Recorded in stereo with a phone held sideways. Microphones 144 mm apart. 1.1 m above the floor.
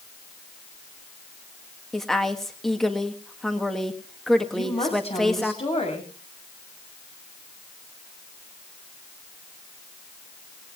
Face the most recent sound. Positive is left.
turn(degrees=45)  # may be behind; listen again after turning